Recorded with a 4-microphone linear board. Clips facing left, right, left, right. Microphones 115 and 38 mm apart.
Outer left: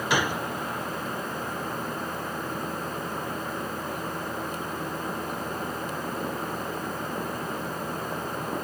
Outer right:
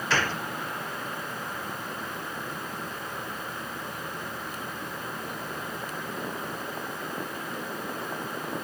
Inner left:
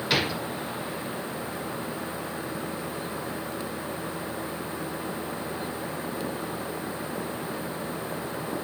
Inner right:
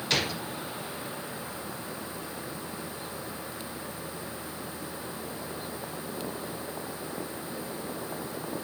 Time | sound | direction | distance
0.1 | a gunshot | 15° left (ahead or behind) | ?